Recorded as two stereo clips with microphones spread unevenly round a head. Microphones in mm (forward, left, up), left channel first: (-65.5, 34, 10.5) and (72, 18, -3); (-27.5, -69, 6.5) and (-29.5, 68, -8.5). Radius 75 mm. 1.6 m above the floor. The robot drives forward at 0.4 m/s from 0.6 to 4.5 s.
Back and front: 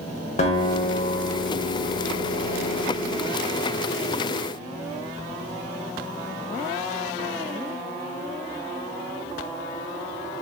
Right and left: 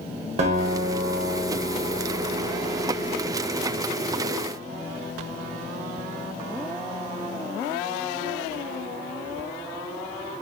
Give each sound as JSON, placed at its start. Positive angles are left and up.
{"t": 0.4, "sound": "a guitar", "azimuth_deg": 135, "distance_m": 0.6}